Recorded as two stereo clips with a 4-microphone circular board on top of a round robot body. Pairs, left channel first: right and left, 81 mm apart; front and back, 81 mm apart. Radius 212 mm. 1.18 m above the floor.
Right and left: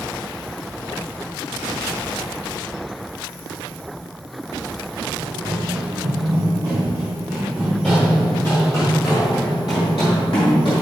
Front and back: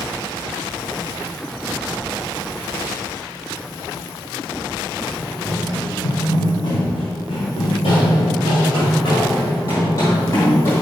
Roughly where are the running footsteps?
Ahead left.